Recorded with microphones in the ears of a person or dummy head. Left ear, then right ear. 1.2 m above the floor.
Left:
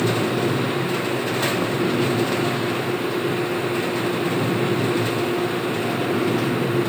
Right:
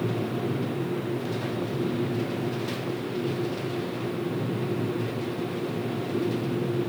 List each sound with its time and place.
Only background noise.